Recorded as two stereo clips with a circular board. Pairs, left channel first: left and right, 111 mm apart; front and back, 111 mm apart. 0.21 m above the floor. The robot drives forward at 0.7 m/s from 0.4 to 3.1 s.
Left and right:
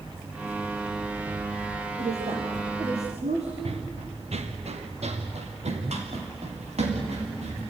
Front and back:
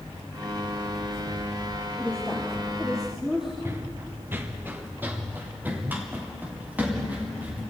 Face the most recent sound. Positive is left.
turn(degrees=-105)